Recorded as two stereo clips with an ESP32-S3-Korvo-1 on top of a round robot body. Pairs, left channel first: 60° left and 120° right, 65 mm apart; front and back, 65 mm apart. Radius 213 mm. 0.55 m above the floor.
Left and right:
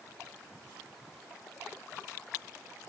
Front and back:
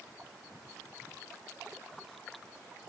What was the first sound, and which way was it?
Only background noise.